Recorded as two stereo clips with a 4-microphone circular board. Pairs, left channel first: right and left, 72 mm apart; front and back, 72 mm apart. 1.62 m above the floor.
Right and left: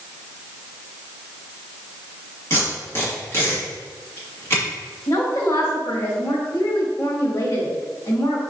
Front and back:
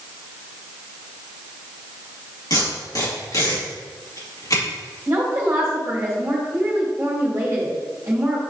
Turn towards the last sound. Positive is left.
turn(degrees=-125)